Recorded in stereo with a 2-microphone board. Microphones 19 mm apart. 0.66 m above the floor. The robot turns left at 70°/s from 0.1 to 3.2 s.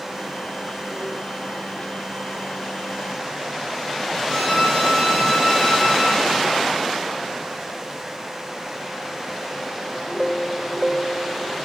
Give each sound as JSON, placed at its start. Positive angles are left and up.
{"t": 4.3, "sound": "a violin", "side_deg": 15, "distance_m": 3.5}